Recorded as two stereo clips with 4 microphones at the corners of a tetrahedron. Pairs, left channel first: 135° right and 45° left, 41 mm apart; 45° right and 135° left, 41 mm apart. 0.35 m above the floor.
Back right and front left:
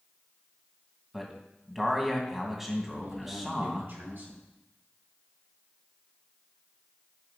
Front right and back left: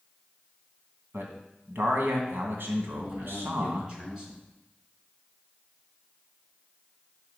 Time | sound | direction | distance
1.1 | a man speaking | 125° left | 2.5 m
2.9 | a man speaking | 65° left | 4 m